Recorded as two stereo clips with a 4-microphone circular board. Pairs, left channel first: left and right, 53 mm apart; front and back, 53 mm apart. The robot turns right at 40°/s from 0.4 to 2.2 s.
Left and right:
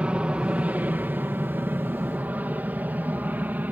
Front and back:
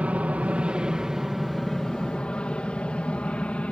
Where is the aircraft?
140° right; by 3.7 s 55° right.